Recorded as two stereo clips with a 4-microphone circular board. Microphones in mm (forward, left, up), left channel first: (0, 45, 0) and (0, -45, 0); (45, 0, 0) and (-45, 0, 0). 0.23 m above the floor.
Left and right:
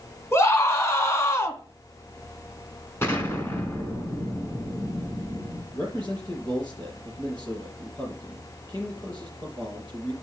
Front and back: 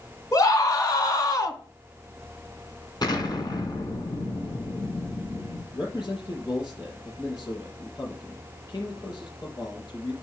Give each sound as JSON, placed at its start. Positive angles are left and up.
{"t": 0.3, "sound": "a scream", "azimuth_deg": 35, "distance_m": 2.5}
{"t": 3.0, "sound": "an explosion", "azimuth_deg": 30, "distance_m": 2.5}
{"t": 5.7, "sound": "a man speaking", "azimuth_deg": 50, "distance_m": 5.0}